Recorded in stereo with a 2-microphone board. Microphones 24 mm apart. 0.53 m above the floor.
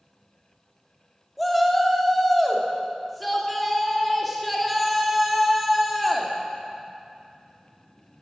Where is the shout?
Centre (ahead or behind), 1.1 m.